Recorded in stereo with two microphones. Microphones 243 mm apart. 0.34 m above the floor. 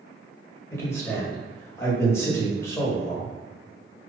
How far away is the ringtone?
No ringtone in this recording.